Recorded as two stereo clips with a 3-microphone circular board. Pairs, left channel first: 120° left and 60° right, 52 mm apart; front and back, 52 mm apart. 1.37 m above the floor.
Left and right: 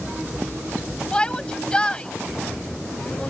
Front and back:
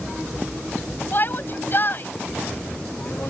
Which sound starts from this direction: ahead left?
A shout, at 1.1 s.